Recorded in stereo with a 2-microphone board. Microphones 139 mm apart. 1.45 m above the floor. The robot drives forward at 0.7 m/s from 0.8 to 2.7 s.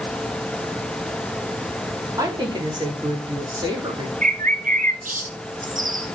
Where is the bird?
70° right (ahead or behind), 0.7 m.